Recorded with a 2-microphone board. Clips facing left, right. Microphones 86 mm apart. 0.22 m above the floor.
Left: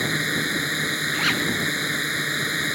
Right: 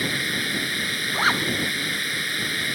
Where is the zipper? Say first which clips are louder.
Right 4 dB; 35° right (ahead or behind).